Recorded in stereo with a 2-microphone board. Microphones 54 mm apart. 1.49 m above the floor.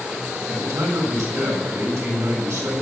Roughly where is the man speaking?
Right.